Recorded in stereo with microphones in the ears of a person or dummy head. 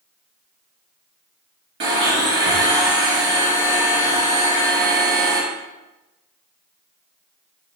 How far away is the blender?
About 1.0 m.